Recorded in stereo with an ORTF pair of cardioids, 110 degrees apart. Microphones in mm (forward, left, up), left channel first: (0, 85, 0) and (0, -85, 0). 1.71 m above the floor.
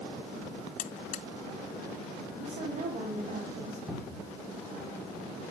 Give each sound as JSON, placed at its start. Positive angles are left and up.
{"t": 0.8, "sound": "a buzzer", "azimuth_deg": 50, "distance_m": 0.8}
{"t": 2.4, "sound": "a woman speaking", "azimuth_deg": -45, "distance_m": 4.5}
{"t": 3.9, "sound": "a cupboard door", "azimuth_deg": -5, "distance_m": 4.5}